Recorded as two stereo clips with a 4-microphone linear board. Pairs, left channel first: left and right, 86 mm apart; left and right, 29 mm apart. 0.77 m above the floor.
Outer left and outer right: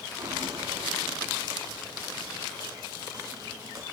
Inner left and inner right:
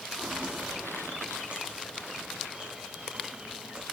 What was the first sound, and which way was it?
Footsteps, 60° right (ahead or behind).